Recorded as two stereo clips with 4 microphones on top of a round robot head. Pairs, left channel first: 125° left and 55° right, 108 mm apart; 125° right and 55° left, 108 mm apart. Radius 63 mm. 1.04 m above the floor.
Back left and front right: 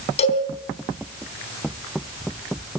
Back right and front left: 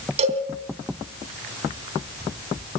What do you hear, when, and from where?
0.2 s a cowbell: 90° left, 3.5 m